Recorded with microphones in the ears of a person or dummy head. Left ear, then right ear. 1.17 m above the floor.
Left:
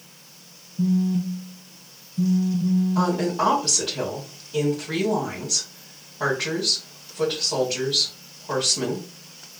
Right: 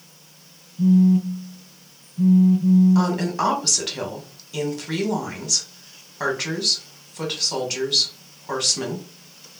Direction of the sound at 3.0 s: 60° right (ahead or behind).